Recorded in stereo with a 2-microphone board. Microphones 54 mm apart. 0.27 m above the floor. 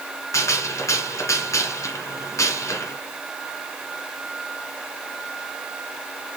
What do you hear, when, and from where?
0.3 s a gunshot: 70° left (ahead or behind), 2 m